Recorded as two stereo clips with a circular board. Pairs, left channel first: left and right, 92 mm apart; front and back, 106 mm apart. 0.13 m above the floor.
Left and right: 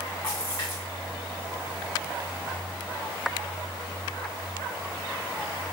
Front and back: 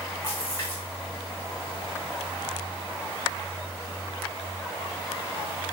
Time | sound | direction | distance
0.2 | a splash | 50° left | 3.5 m